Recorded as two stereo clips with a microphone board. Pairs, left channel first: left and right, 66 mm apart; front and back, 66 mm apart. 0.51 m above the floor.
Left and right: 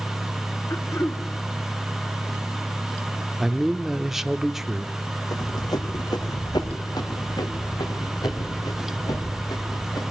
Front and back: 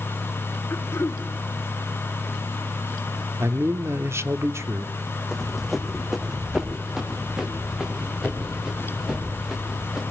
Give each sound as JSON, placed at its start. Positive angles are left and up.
{"t": 0.7, "sound": "throat clearing", "azimuth_deg": 45, "distance_m": 1.3}
{"t": 3.4, "sound": "a man speaking", "azimuth_deg": -175, "distance_m": 0.8}
{"t": 5.3, "sound": "running footsteps", "azimuth_deg": 90, "distance_m": 1.5}